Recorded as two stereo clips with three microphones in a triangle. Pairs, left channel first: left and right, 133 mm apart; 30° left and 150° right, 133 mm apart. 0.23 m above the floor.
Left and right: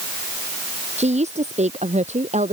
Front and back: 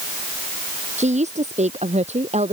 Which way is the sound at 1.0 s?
120° right.